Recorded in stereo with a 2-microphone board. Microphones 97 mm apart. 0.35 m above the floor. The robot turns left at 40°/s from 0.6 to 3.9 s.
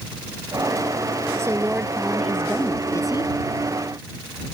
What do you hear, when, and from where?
1.4 s a woman speaking: 150° right; by 3.3 s 135° left